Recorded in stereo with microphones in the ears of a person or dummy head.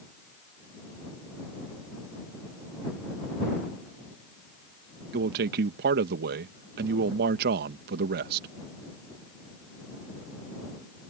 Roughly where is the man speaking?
Right.